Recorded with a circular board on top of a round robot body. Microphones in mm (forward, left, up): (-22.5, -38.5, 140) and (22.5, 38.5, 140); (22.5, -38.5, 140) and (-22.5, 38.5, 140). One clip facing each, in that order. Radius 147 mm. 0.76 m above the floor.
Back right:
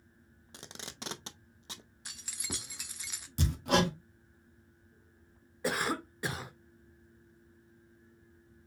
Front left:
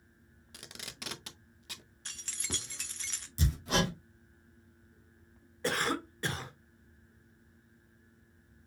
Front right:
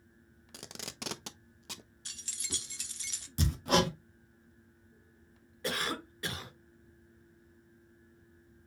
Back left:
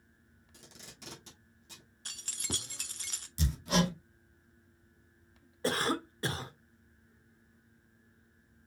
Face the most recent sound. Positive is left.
turn(degrees=160)